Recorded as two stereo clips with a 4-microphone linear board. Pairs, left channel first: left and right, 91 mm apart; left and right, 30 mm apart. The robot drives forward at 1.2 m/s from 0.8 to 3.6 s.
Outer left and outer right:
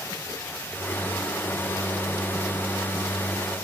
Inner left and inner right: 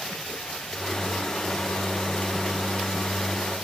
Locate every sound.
Only background noise.